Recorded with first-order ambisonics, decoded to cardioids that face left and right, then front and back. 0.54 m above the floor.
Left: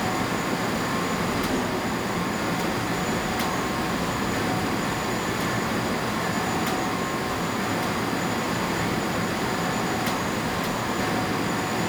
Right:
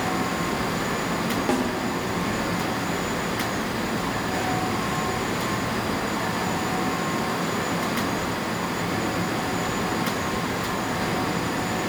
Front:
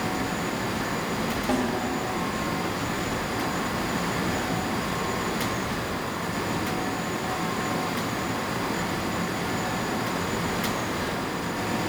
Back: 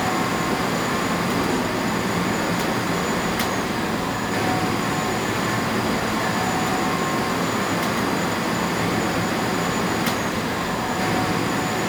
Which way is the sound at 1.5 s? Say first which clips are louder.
Right 3 dB, back 2 dB; 95° right.